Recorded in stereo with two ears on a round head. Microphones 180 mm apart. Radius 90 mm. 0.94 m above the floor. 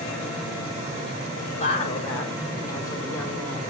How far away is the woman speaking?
About 3 m.